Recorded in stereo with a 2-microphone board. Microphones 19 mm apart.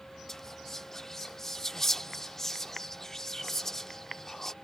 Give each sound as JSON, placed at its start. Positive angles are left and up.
{"t": 0.3, "sound": "whispering", "side_deg": 25}